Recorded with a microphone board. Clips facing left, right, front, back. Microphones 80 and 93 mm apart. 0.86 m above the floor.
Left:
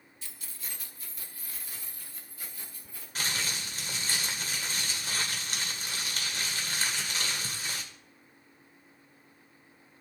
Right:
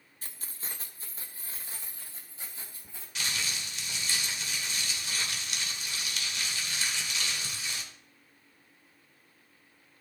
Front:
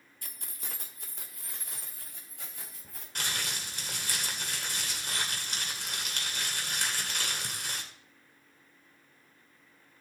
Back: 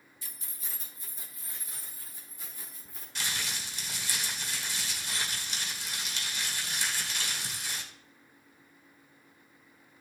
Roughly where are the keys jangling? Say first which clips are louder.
Right 2 dB, front 3 dB; ahead right.